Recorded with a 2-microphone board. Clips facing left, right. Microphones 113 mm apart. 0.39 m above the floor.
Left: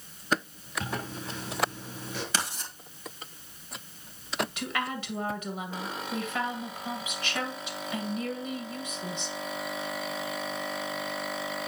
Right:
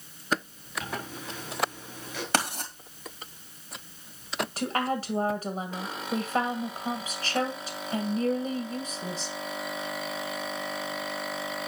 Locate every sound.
0.8 s a zipper: 30° left (ahead or behind), 5.5 m
2.3 s writing: 55° right (ahead or behind), 2 m
4.6 s a woman speaking: 40° right (ahead or behind), 2 m